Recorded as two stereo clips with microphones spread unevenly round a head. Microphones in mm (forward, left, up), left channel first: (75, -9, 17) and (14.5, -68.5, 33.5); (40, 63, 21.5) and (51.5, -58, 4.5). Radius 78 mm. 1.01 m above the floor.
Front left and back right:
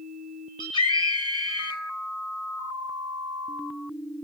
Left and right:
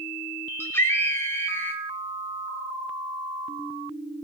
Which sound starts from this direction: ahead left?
A scream, at 0.6 s.